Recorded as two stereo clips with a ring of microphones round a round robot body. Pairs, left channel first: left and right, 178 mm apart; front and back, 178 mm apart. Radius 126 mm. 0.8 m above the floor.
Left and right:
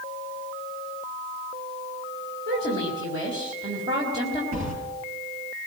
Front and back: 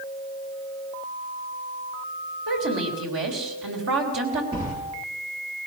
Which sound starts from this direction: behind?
A woman speaking, at 2.5 s.